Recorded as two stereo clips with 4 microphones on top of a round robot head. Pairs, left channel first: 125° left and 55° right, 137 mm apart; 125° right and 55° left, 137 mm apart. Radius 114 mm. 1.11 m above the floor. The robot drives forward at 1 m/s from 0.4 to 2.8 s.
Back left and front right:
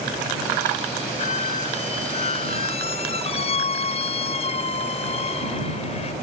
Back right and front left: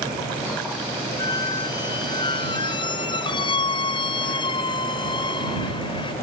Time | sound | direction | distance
1.2 | a squeak | 170° left | ?